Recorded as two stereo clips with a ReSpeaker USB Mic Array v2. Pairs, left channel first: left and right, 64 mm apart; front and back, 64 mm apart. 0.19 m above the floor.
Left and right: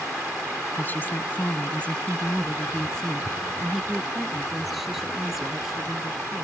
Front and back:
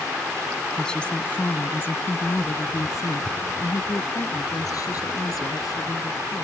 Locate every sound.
0.8 s a woman speaking: 70° left; by 6.4 s 5° right